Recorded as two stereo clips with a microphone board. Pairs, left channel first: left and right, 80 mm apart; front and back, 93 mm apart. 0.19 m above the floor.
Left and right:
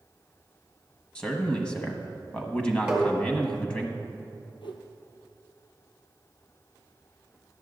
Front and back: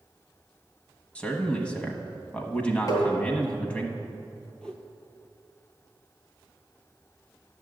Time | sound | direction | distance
1.1 | a man speaking | 45° left | 1.0 m
2.9 | tapping | 20° right | 1.9 m
4.6 | a whoosh | 80° left | 0.8 m